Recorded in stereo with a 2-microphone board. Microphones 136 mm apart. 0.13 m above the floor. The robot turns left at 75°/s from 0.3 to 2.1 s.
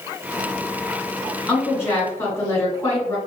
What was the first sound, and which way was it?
A woman speaking, 10° left (ahead or behind).